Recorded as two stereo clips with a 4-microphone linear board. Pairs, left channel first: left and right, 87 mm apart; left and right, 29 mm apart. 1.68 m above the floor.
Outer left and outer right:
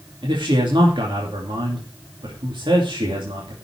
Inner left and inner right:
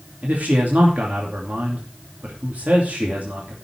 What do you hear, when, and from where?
0.2 s a man speaking: 65° right (ahead or behind), 2.5 m